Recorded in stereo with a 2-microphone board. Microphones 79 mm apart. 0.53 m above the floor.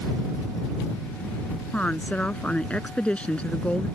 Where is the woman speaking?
15° left (ahead or behind).